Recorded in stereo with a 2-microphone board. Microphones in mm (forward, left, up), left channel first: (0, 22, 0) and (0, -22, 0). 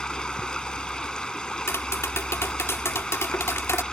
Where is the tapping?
85° left.